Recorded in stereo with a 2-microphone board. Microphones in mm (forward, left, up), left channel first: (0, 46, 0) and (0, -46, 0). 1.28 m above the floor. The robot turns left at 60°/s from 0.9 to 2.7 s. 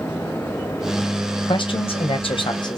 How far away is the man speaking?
About 0.6 m.